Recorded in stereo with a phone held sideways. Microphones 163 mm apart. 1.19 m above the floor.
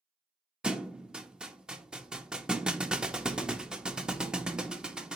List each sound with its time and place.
0.6 s a thud: 5° right (ahead or behind), 0.6 m